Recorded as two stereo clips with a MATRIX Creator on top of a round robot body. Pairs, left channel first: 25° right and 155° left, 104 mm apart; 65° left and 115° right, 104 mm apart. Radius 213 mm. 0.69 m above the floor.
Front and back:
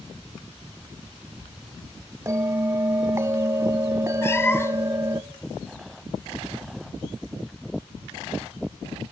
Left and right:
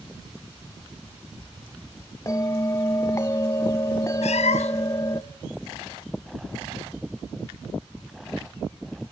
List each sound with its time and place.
2.3 s a bell: 110° left, 1.0 m
4.2 s a cat meowing: 45° left, 0.6 m